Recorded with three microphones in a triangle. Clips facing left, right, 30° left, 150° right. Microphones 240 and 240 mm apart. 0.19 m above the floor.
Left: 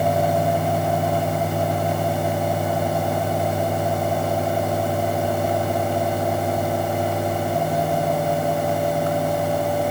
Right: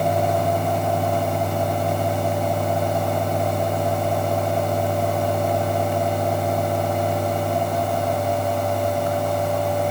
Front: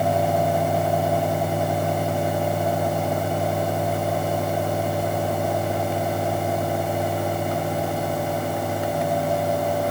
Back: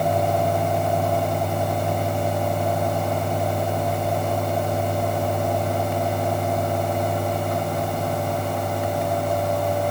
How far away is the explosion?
No explosion in this recording.